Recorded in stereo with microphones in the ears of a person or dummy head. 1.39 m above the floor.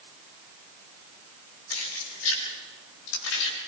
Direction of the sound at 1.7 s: 85° left.